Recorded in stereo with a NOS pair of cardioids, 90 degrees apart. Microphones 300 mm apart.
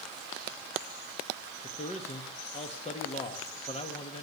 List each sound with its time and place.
1.6 s a man speaking: 20° left, 1.6 m